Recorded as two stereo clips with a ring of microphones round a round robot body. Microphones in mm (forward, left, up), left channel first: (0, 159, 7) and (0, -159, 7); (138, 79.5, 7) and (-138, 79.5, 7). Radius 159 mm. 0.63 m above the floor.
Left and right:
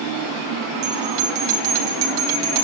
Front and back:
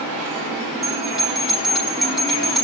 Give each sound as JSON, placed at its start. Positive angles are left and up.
{"t": 0.8, "sound": "a bell", "azimuth_deg": -90, "distance_m": 3.5}